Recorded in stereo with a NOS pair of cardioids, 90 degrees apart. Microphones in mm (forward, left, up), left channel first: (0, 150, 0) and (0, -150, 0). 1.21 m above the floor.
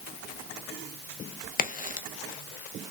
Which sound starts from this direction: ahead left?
A crack, at 1.6 s.